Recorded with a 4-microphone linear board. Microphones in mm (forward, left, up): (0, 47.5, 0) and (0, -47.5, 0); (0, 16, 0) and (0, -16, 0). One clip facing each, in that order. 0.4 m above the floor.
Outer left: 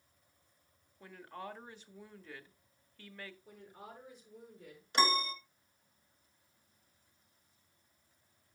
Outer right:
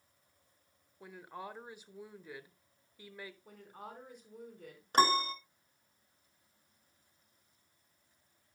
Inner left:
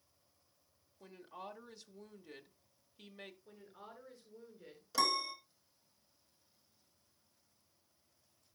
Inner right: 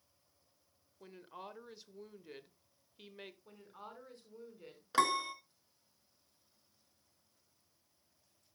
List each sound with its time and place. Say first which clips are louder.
1.0 s a woman speaking: even, even; 15° right (ahead or behind), 1.0 m
3.5 s a woman speaking: outer right 2 dB, inner right 2 dB; 55° right (ahead or behind), 4 m
4.9 s a piano: outer right 3 dB, inner right 3 dB; 45° right (ahead or behind), 1.1 m